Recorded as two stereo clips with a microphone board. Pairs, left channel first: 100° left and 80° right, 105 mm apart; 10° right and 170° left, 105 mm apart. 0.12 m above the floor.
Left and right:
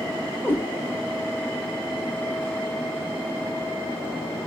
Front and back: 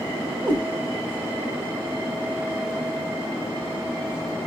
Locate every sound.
0.4 s a cat meowing: 160° left, 1.4 m